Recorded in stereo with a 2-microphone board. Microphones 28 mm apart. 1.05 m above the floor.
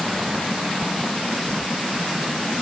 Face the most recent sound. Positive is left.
No sound to turn to.